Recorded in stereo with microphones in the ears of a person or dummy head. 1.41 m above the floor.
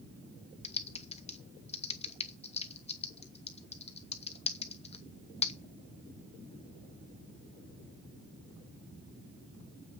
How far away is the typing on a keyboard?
About 1.1 m.